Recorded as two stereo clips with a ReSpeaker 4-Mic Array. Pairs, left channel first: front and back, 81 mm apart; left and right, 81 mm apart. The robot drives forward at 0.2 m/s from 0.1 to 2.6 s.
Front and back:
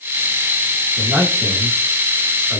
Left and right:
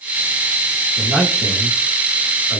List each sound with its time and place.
1.0 s a man speaking: 170° left, 1.1 m; by 2.6 s 175° left, 1.3 m